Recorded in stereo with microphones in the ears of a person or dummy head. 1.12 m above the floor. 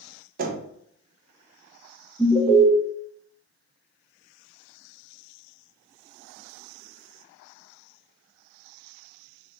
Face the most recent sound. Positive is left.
turn(degrees=-5)  # may be behind; listen again after turning